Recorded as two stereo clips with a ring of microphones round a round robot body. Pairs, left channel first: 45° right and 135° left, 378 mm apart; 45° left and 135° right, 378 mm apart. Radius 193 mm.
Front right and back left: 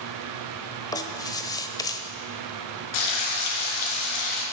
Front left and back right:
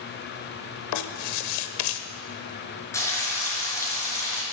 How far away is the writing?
About 1.1 m.